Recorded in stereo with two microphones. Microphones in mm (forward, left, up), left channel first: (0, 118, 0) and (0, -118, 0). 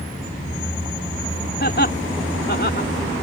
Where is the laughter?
45° left (ahead or behind); by 2.9 s 50° left (ahead or behind).